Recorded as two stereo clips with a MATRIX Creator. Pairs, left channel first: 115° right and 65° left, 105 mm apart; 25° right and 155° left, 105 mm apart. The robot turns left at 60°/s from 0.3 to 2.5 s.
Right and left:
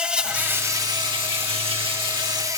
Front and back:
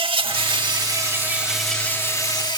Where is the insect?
145° left, 0.7 m; by 2.6 s 15° left, 0.7 m.